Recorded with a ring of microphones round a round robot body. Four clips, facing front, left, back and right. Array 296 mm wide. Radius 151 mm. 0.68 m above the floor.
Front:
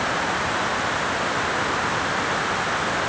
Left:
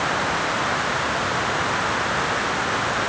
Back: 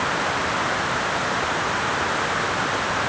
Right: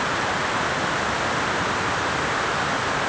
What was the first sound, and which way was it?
Only background noise.